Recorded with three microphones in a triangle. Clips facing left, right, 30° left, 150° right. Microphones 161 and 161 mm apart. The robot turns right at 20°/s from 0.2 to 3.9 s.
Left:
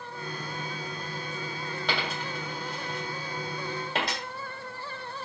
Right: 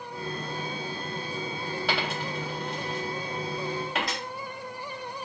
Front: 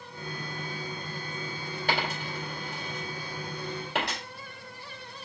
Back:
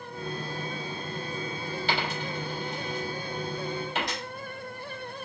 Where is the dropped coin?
5° right, 2.5 m; by 4.2 s 35° left, 2.5 m.